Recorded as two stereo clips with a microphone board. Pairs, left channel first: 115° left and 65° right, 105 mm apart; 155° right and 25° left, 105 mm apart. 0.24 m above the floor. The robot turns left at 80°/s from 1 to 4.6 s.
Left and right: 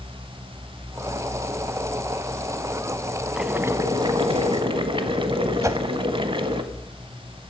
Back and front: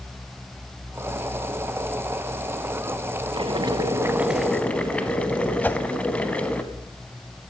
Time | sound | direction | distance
3.4 | boiling | 15° left | 0.8 m
5.6 | a whoosh | 100° right | 0.5 m